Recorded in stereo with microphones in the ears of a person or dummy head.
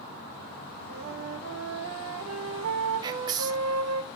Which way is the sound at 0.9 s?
85° right.